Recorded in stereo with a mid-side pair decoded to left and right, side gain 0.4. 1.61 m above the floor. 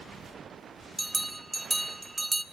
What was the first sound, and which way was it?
A bell, 15° right.